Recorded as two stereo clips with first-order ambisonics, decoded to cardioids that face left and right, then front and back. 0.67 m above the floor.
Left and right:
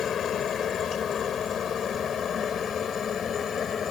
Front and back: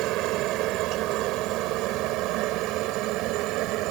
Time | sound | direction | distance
0.0 | a helicopter | 150° left | ?